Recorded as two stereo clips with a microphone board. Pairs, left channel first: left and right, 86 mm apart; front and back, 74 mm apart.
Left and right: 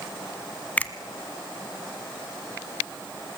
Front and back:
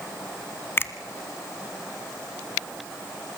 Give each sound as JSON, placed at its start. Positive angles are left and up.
{"t": 0.8, "sound": "a finger snap", "azimuth_deg": 30, "distance_m": 1.0}